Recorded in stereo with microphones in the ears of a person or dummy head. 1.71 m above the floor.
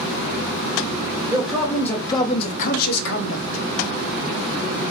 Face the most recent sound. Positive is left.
turn(degrees=85)